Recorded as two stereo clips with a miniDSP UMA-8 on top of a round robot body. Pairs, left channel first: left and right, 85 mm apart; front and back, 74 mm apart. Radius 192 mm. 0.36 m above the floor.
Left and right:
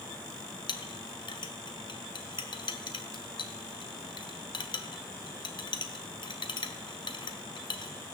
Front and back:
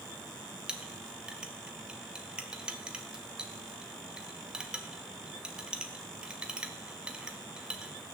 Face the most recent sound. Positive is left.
turn(degrees=105)